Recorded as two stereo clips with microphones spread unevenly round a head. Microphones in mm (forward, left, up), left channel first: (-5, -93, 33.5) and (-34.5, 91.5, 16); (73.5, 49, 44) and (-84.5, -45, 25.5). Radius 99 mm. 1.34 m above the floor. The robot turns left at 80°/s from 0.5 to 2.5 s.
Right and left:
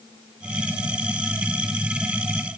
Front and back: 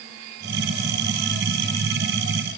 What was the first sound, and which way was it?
Only background noise.